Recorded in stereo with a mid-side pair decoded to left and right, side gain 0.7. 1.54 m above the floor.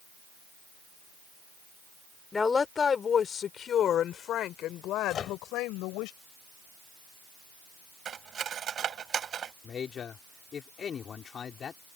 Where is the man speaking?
35° left.